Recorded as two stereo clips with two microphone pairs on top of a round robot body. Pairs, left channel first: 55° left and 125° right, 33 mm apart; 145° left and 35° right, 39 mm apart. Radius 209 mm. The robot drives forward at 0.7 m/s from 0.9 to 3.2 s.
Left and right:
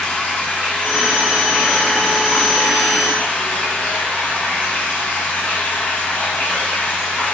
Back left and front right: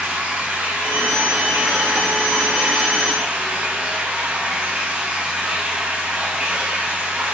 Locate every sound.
0.0 s running water: 20° left, 5.5 m; by 7.3 s 25° left, 4 m